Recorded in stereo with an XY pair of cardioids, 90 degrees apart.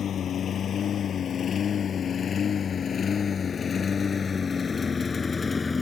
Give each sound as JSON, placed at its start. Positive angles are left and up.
{"t": 0.0, "sound": "a lawn mower", "azimuth_deg": 65}